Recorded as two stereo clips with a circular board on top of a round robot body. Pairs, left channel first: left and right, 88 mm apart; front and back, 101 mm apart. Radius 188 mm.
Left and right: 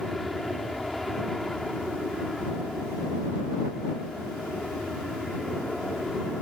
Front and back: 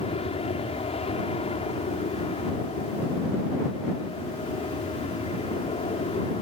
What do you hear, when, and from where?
0.0 s an aircraft: straight ahead